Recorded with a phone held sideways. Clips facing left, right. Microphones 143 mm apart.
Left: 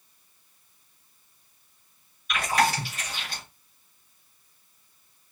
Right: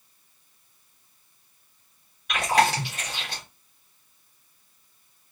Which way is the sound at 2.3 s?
80° right.